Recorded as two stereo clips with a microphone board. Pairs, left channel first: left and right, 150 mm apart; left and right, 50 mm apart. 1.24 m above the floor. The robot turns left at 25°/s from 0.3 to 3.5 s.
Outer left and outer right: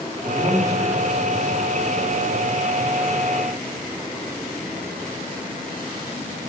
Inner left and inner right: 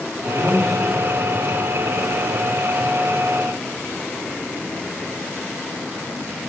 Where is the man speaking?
10° left, 3.5 m; by 2.6 s 50° right, 3.5 m.